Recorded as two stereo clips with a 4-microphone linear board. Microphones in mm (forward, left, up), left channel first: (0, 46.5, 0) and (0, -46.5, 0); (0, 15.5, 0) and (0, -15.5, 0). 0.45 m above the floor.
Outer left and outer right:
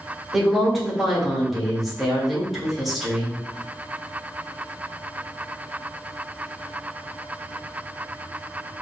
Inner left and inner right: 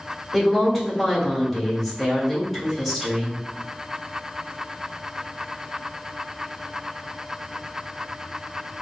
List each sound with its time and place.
0.3 s a woman speaking: centre (ahead or behind), 1.7 m